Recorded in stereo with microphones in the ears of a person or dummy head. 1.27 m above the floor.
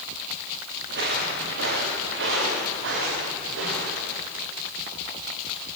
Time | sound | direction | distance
0.9 | footsteps | 60° right (ahead or behind) | 7.5 m